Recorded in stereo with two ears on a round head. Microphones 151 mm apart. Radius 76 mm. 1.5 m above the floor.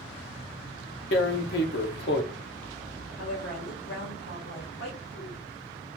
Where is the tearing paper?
75° left (ahead or behind), 1.0 m.